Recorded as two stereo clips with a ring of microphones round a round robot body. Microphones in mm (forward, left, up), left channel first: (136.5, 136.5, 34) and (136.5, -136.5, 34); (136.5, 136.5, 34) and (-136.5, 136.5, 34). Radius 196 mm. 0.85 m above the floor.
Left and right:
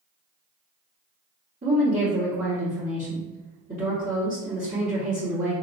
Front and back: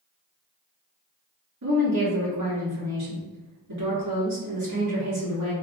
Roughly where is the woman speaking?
Behind.